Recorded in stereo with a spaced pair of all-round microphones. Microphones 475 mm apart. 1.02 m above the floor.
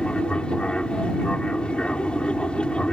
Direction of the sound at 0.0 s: Centre (ahead or behind).